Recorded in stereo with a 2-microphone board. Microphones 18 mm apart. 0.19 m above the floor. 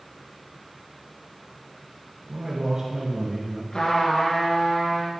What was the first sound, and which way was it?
A man speaking, 35° right (ahead or behind).